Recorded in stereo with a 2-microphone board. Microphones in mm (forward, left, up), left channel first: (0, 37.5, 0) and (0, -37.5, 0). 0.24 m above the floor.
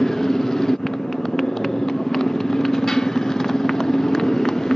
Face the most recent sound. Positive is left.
turn(degrees=10)  # may be behind; listen again after turning